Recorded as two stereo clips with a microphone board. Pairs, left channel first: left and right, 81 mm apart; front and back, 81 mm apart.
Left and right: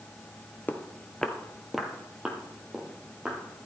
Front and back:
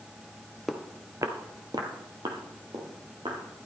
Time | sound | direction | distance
0.7 | footsteps | 90° left | 1.0 m